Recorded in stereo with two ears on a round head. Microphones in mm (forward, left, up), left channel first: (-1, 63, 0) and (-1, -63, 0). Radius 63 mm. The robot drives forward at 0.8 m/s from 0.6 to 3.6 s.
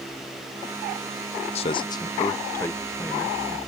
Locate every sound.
1.6 s a man speaking: 45° left (ahead or behind); by 3.6 s 10° left (ahead or behind)